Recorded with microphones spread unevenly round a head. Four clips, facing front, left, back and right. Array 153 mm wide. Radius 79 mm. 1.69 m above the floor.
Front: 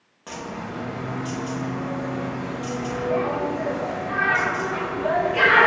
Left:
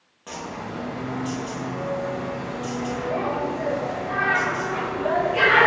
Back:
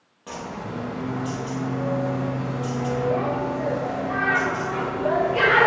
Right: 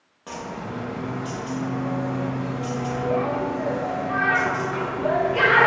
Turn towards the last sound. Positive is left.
turn(degrees=-150)